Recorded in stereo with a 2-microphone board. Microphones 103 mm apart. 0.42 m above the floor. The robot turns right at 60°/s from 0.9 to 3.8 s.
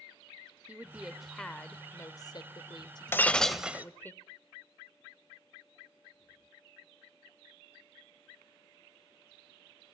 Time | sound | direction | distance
0.7 | a woman speaking | 20° right | 1.0 m
3.1 | breaking glass | 155° left | 0.9 m